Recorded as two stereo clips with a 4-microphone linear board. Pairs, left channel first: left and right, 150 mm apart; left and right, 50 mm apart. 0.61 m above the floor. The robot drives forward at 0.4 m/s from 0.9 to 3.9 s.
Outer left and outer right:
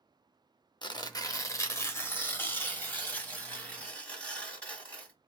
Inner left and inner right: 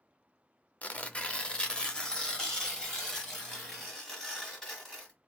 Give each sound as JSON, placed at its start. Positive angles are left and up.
{"t": 0.8, "sound": "tearing paper", "side_deg": 30, "distance_m": 0.6}